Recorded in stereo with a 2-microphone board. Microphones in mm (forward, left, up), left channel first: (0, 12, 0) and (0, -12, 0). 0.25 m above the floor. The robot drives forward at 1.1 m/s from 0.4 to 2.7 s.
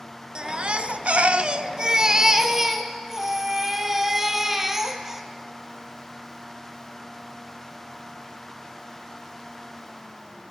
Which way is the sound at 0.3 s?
40° right (ahead or behind).